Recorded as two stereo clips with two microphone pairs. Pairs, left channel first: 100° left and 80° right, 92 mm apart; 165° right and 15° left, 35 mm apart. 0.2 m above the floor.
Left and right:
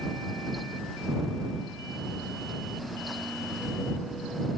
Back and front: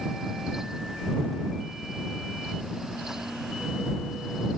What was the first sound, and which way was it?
Only background noise.